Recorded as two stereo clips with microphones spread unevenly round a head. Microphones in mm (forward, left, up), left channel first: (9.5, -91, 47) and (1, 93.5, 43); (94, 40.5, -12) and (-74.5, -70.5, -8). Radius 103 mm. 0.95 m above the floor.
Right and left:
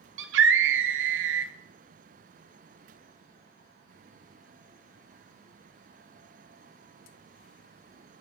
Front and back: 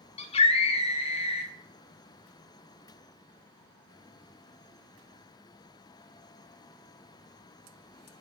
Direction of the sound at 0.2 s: 95° left.